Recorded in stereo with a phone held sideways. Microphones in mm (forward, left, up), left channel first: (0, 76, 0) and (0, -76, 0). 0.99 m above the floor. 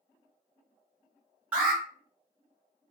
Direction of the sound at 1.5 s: 10° right (ahead or behind).